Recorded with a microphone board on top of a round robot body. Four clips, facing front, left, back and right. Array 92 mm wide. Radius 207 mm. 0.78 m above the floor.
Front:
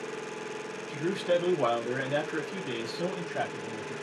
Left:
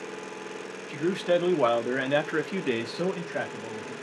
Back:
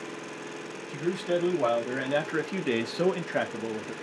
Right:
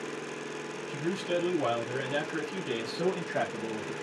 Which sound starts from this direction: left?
A man speaking, at 0.9 s.